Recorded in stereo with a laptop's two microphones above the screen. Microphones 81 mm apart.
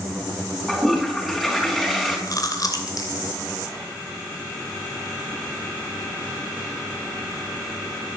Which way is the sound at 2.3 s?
50° left (ahead or behind).